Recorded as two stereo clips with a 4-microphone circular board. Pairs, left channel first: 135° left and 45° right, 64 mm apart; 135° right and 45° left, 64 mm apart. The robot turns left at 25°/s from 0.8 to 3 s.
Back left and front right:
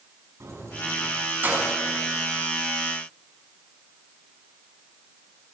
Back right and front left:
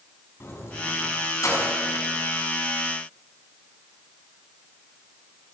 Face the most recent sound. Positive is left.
turn(degrees=-145)